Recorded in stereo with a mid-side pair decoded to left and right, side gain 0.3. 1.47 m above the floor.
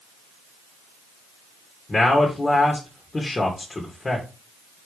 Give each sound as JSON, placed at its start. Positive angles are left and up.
{"t": 1.9, "sound": "a man speaking", "azimuth_deg": 35, "distance_m": 2.5}